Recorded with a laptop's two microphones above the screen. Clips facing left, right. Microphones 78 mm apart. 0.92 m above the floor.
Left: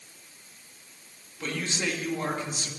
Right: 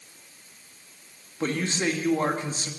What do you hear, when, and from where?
1.4 s a man speaking: 35° right (ahead or behind), 1.7 m